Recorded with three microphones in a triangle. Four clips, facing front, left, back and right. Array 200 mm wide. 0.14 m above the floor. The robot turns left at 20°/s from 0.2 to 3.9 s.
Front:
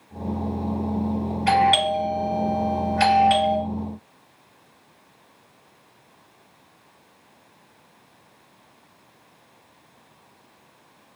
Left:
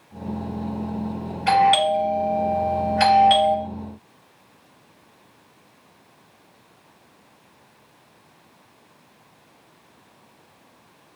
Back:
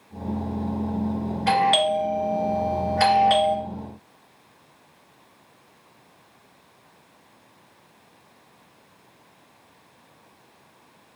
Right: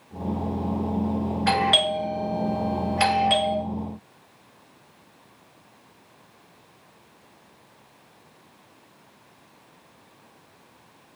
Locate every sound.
1.5 s a doorbell: 115° right, 3 m; by 3.6 s 160° right, 3 m